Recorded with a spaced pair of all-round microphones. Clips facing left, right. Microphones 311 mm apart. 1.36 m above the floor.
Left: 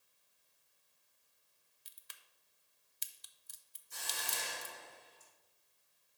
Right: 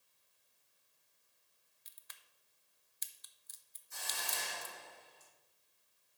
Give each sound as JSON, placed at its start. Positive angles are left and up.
{"t": 1.9, "sound": "a crack", "side_deg": 40, "distance_m": 0.5}
{"t": 3.9, "sound": "a hiss", "side_deg": 40, "distance_m": 2.5}